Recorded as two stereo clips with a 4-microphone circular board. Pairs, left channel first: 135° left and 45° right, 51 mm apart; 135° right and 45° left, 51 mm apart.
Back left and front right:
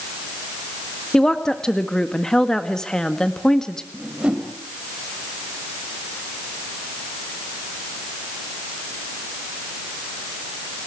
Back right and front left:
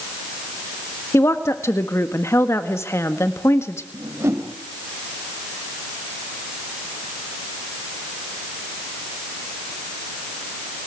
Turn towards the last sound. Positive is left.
turn(degrees=20)